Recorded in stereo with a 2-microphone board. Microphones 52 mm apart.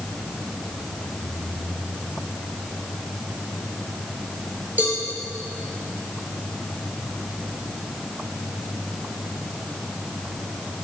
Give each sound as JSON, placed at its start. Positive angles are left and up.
{"t": 4.8, "sound": "a cowbell", "side_deg": -35, "distance_m": 4.0}